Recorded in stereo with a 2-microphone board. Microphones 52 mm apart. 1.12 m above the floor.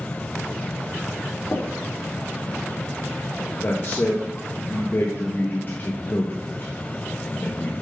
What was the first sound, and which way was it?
Tapping, 65° left (ahead or behind).